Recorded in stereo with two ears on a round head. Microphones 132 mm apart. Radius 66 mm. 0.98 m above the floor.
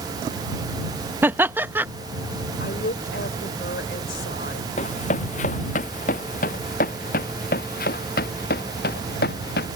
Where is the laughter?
15° right (ahead or behind).